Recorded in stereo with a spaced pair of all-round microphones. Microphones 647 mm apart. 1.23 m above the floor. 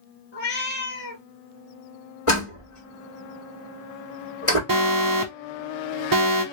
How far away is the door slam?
About 1.8 m.